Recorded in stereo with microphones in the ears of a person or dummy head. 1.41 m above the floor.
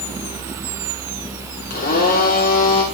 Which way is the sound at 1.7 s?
45° left (ahead or behind).